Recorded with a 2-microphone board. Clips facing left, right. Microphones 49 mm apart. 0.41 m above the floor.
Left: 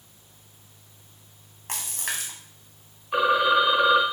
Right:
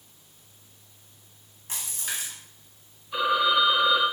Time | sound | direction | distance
1.7 | a splash | 65° left (ahead or behind) | 1.6 m
3.1 | a phone ringing | 50° left (ahead or behind) | 1.3 m